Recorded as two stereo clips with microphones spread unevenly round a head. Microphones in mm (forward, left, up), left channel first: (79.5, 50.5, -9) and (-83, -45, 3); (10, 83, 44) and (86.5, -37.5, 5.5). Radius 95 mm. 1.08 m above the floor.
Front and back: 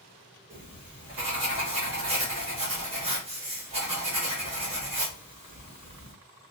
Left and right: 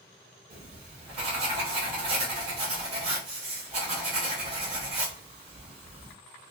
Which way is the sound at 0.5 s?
90° right.